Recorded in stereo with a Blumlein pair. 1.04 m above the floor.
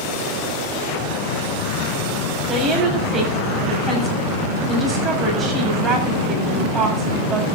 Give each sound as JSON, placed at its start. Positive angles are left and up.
{"t": 2.5, "sound": "a woman speaking", "azimuth_deg": -25, "distance_m": 7.0}